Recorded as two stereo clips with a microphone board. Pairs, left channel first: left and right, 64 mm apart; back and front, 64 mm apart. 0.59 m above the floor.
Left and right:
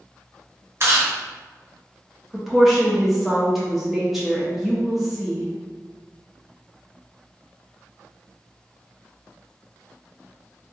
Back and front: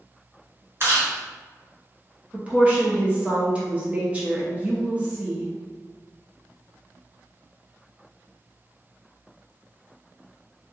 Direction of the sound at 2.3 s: 5° right.